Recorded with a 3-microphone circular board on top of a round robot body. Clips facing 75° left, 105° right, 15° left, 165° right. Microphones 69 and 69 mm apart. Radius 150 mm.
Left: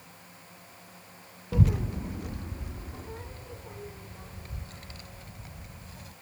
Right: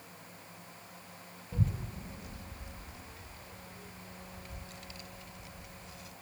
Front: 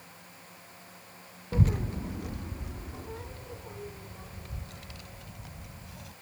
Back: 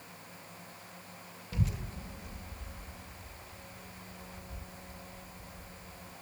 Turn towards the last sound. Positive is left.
turn(degrees=25)